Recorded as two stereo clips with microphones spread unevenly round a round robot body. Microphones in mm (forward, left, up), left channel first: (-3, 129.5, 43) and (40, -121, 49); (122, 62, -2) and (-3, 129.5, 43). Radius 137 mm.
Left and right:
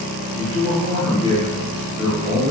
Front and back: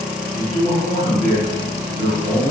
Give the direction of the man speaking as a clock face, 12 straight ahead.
8 o'clock.